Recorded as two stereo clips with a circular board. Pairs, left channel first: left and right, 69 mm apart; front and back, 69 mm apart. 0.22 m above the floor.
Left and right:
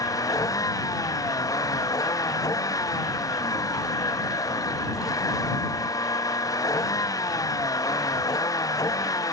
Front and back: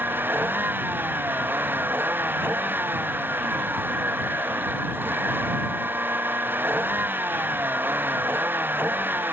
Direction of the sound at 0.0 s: 120° left.